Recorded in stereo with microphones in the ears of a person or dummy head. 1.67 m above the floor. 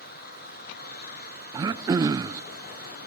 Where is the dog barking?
No dog barking in this recording.